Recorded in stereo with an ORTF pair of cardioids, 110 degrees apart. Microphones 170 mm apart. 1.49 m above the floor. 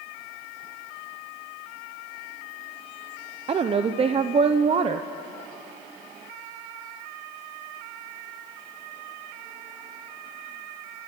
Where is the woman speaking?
35° right, 0.8 m.